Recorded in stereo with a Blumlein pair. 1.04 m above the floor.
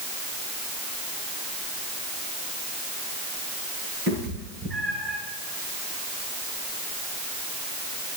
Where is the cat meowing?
30° right, 6 m; by 5.2 s 20° right, 7.5 m.